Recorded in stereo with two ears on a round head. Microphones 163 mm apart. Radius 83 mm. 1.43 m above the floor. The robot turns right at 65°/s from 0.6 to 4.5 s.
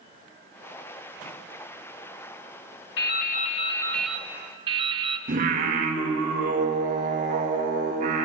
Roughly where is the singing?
Right.